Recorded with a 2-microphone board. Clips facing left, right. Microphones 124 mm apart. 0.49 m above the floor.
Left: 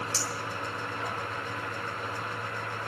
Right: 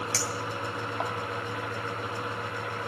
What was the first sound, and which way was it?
A clink, 70° right (ahead or behind).